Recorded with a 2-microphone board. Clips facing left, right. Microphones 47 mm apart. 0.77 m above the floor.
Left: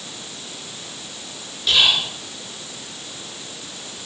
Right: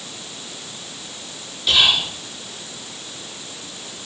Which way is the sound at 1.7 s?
Centre (ahead or behind).